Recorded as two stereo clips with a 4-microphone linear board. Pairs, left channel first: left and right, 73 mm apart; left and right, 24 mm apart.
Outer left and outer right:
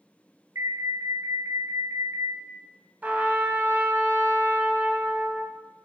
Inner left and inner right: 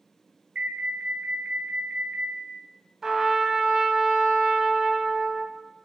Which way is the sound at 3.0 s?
20° right (ahead or behind).